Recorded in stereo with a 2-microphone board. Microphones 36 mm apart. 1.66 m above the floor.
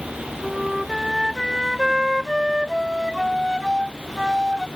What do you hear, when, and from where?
0.4 s a flute: 15° right (ahead or behind)